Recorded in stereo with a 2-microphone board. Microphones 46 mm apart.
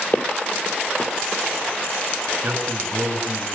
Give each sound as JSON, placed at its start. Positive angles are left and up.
{"t": 0.1, "sound": "footsteps", "side_deg": 40, "distance_m": 2.0}
{"t": 2.4, "sound": "a man speaking", "side_deg": -35, "distance_m": 8.5}